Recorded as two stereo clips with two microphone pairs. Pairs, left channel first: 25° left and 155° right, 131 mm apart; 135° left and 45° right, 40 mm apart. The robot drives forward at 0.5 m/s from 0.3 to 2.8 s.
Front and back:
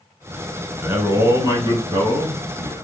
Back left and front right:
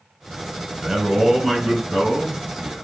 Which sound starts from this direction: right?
A man speaking, at 0.8 s.